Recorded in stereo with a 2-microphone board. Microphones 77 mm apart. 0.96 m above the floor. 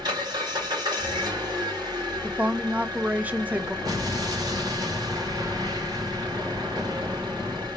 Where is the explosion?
60° right (ahead or behind), 2.5 m.